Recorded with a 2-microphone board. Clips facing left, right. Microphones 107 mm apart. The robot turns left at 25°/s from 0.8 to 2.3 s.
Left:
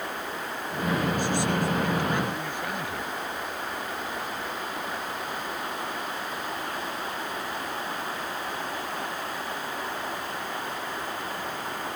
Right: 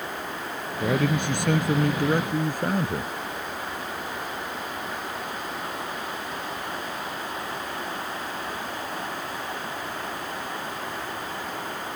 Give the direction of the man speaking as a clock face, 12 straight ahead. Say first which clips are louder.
Right 3 dB; 3 o'clock.